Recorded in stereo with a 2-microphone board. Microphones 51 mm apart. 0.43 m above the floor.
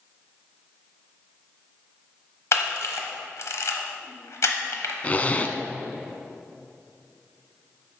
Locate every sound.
2.5 s a camera shutter: 65° left (ahead or behind), 1.0 m
5.0 s a zipper: 30° left (ahead or behind), 0.5 m